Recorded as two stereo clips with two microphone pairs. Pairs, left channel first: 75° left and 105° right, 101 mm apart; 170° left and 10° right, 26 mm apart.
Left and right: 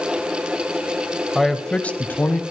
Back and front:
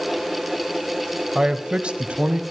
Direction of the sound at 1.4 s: 15° right.